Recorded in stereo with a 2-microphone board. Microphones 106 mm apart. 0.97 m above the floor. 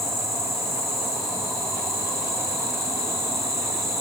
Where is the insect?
35° left (ahead or behind), 7 m.